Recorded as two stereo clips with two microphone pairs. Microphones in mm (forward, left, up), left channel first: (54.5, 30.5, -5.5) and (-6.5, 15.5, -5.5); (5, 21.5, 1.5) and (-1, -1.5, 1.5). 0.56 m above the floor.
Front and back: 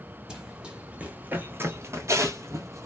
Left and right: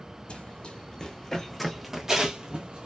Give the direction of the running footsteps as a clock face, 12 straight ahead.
8 o'clock.